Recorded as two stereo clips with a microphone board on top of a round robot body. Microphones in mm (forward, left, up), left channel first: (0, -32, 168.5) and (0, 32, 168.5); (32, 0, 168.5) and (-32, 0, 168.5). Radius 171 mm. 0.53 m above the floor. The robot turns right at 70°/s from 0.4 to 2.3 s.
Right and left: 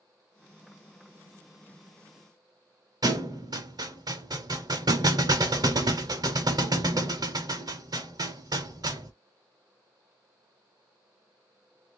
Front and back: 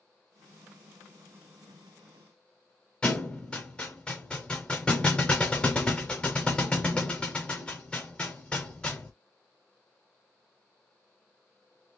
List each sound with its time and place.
3.0 s a thud: 75° left, 0.5 m